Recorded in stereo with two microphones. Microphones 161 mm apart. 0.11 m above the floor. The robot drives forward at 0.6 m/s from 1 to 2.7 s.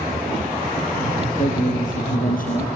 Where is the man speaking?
55° left (ahead or behind), 3 m; by 2.7 s 60° left (ahead or behind), 3 m.